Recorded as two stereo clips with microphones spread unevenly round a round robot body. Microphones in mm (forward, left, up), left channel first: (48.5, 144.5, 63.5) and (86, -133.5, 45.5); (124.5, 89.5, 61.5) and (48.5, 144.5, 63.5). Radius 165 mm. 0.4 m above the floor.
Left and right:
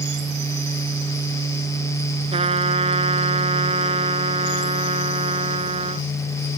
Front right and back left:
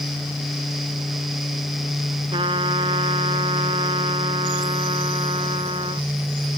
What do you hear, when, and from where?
2.3 s a trumpet: 155° right